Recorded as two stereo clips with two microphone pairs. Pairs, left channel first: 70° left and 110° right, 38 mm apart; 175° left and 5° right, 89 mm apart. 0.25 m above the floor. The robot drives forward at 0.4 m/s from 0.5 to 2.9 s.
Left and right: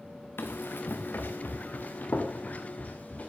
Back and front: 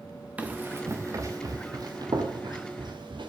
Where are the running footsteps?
70° left, 1.6 m; by 3.3 s 25° left, 4 m.